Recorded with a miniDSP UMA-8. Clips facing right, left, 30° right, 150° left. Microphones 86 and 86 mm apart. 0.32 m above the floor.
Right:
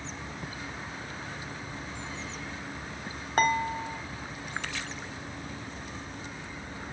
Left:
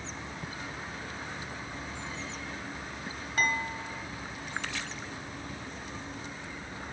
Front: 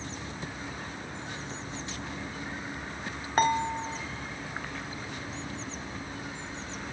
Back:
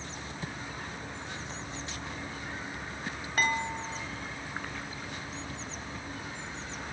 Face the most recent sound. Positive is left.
turn(degrees=-70)